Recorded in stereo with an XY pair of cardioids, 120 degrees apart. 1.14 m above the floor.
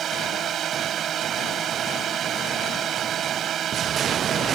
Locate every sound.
0.0 s a drone: 55° right